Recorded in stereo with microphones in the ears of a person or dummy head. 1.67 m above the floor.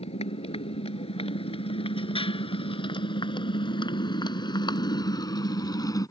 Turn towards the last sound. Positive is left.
turn(degrees=20)  # may be behind; listen again after turning